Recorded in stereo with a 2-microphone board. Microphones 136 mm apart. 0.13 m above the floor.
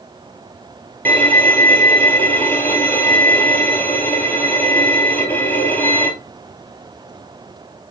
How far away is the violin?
About 1.4 m.